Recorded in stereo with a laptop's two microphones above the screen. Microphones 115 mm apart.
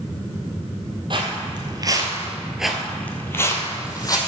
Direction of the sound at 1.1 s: 45° right (ahead or behind).